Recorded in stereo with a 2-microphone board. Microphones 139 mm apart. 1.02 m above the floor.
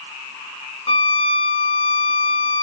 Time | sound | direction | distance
0.9 | a violin | 40° left (ahead or behind) | 1.0 m